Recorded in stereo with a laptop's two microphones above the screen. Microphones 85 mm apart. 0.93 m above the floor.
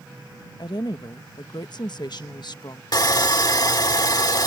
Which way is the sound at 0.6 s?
55° left (ahead or behind).